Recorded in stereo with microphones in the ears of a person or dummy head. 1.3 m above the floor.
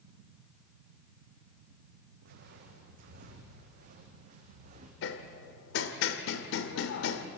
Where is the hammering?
65° left (ahead or behind), 1.9 m.